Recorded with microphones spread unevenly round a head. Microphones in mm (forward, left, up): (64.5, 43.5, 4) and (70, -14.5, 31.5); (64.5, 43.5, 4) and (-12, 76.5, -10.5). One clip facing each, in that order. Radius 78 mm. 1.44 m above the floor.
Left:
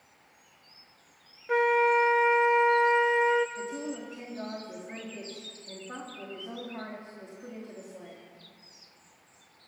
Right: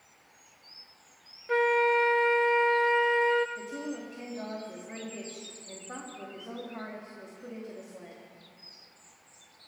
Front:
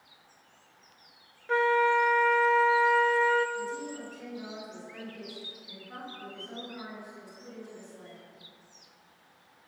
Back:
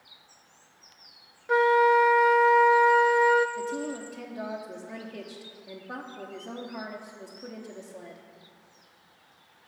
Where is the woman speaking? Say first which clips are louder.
Left 1 dB, back 4 dB; 175° right, 3 m.